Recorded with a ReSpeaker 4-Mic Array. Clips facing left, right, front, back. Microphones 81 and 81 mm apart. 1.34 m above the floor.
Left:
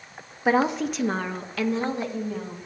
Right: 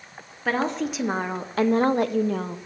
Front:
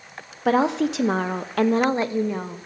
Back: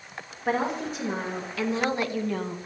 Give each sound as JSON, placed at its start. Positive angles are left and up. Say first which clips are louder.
{"t": 0.5, "sound": "a woman speaking", "louder": "left 3 dB, front 7 dB", "azimuth_deg": 15, "distance_m": 0.8}